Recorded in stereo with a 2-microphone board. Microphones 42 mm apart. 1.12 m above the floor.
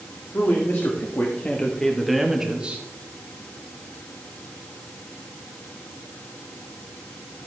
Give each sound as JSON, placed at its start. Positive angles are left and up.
{"t": 0.3, "sound": "a man speaking", "side_deg": 65, "distance_m": 2.0}